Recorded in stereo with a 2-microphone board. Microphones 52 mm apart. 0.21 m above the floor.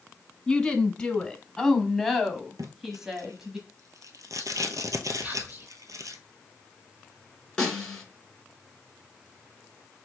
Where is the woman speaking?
10° left (ahead or behind), 1.5 m; by 3.6 s 10° right (ahead or behind), 1.1 m.